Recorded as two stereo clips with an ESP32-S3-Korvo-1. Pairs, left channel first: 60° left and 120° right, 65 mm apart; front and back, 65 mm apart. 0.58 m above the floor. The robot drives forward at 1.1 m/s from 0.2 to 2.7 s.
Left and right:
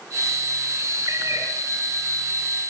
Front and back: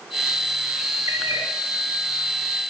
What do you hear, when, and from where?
1.1 s a cat meowing: 150° right, 2.5 m; by 1.5 s 155° right, 3 m